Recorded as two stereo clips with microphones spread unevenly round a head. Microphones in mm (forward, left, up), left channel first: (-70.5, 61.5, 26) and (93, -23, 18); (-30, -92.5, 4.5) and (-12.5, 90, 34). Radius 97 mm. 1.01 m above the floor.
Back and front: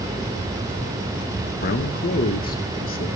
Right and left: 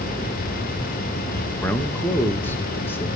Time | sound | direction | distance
1.6 | a man speaking | 170° right | 1.1 m